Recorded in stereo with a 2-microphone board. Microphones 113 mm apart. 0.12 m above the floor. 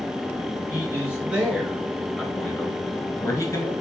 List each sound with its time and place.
0.7 s a man speaking: 20° right (ahead or behind), 1.7 m; by 3.7 s 30° left (ahead or behind), 1.6 m